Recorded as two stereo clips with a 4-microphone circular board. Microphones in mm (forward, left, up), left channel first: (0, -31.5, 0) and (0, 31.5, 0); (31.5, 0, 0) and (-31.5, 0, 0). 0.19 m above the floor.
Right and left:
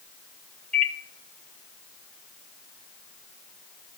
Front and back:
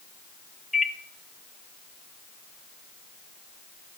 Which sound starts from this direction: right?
A microwave, at 0.7 s.